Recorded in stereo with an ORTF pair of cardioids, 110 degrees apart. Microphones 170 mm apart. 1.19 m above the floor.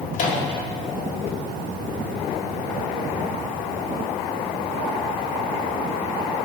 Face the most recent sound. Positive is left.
turn(degrees=50)